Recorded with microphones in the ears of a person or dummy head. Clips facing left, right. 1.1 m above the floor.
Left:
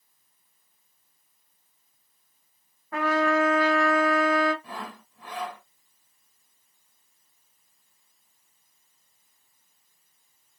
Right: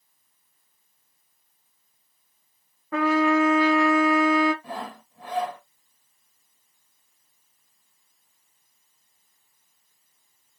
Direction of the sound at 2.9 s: 55° right (ahead or behind).